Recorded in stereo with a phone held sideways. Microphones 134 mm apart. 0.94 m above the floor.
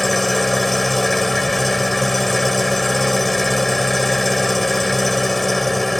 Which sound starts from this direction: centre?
An engine running, at 0.0 s.